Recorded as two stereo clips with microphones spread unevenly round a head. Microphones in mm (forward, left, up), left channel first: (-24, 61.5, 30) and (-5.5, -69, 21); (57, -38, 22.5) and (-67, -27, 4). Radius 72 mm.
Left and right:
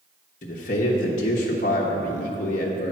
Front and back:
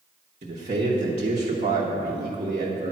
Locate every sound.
0.4 s a man speaking: 130° left, 1.0 m